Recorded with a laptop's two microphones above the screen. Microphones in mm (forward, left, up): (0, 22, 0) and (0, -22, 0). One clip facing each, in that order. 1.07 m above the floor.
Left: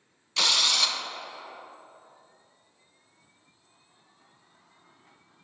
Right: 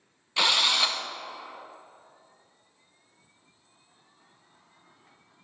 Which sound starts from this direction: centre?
A drill, at 0.4 s.